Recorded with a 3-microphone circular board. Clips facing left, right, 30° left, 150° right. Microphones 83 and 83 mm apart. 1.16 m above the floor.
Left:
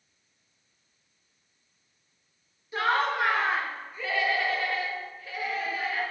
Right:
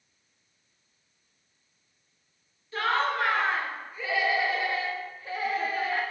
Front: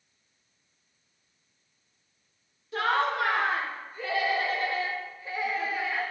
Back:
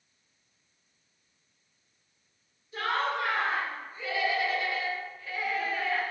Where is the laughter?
15° left, 1.9 m; by 6.0 s 50° right, 1.5 m.